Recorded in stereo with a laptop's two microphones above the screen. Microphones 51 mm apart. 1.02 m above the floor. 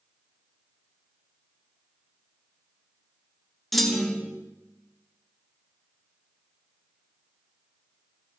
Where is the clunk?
5° left (ahead or behind), 0.8 m.